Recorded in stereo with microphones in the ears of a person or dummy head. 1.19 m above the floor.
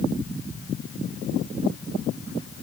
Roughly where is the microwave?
No microwave in this recording.